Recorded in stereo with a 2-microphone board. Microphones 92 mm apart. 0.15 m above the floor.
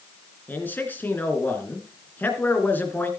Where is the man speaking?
20° left (ahead or behind), 2 m.